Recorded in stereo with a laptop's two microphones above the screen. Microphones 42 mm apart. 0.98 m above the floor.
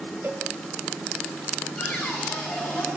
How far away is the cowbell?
About 2.5 m.